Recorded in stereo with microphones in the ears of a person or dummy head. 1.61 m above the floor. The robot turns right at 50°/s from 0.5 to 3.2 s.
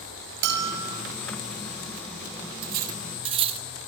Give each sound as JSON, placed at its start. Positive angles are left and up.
{"t": 0.4, "sound": "a bell", "side_deg": -65, "distance_m": 5.5}
{"t": 2.6, "sound": "cutlery clinking", "side_deg": -50, "distance_m": 1.5}